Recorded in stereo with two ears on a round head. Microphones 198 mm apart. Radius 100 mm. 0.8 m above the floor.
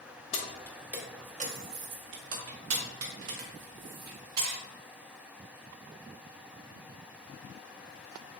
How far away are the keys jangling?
About 0.6 m.